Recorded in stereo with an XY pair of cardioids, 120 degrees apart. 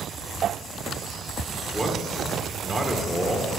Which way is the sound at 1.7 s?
15° right.